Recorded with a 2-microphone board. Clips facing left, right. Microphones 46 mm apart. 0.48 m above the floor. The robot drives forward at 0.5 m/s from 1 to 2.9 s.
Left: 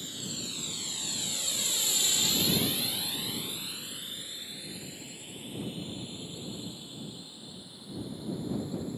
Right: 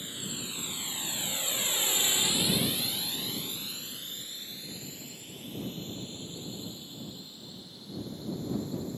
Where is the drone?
20° right (ahead or behind); by 9.0 s 15° left (ahead or behind).